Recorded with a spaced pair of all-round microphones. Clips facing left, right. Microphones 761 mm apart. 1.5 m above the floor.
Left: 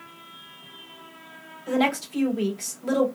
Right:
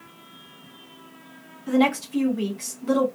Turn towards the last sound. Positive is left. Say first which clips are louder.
# right 4 dB
turn(degrees=15)  # may be behind; listen again after turning